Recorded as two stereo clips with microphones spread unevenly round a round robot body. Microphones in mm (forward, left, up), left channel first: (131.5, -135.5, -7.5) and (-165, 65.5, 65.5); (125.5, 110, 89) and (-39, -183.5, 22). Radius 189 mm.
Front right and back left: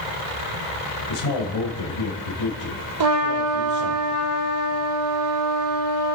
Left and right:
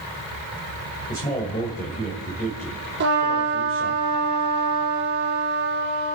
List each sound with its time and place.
1.1 s a man speaking: 10° right, 3 m
3.0 s a trumpet: 175° left, 4.5 m